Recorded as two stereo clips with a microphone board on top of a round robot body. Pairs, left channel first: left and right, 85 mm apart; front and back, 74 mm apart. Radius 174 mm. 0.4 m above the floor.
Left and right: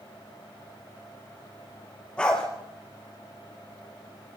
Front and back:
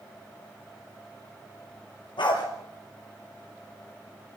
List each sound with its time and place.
2.2 s a dog barking: 10° left, 3.5 m